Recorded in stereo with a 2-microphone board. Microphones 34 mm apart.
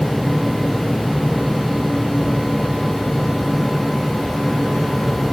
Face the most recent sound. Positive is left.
No sound to turn to.